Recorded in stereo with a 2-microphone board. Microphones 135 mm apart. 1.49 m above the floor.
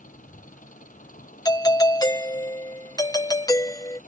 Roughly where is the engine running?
Left.